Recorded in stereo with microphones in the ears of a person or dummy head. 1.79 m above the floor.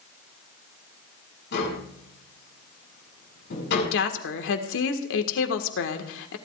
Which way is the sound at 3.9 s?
75° left (ahead or behind).